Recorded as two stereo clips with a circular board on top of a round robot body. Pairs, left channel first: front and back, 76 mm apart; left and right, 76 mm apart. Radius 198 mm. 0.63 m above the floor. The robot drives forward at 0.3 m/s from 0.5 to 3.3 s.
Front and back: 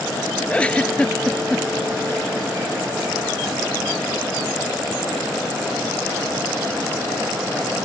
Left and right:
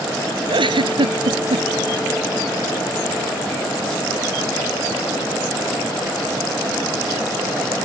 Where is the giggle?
75° right; by 1.6 s 80° right.